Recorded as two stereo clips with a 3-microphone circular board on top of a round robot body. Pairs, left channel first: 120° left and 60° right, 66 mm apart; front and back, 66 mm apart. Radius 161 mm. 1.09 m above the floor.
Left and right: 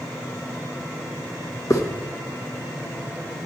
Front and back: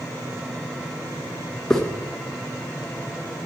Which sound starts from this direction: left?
A hiss, at 1.7 s.